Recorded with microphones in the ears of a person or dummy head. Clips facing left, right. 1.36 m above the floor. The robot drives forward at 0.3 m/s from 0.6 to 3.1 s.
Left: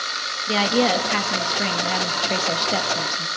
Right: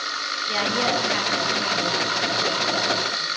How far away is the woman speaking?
About 2 m.